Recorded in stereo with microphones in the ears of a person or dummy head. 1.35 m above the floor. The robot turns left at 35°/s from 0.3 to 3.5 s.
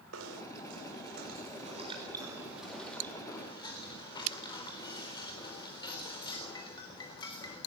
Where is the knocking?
85° right, 4 m; by 7.6 s 165° left, 4 m.